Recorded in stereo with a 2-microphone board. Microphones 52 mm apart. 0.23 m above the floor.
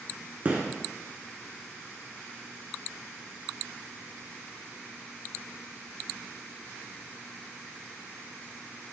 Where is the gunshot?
30° right (ahead or behind), 0.6 m.